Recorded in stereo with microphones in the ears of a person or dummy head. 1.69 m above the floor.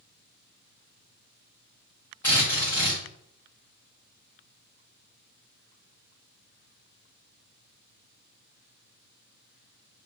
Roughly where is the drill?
Centre.